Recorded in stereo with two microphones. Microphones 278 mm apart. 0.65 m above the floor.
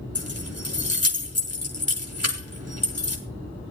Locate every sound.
0.1 s keys jangling: 55° left (ahead or behind), 2 m